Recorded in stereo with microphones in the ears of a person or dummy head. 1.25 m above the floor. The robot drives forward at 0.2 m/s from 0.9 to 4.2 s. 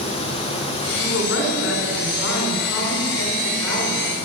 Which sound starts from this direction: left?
A woman speaking, at 1.0 s.